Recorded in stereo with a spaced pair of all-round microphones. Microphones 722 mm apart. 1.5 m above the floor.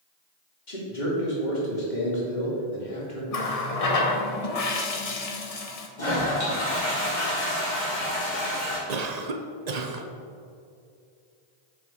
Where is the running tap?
55° left (ahead or behind), 0.9 m.